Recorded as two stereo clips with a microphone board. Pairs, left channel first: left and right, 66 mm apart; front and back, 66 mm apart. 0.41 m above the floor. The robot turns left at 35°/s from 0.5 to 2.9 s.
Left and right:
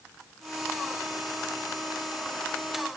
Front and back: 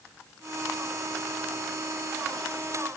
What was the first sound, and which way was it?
Only background noise.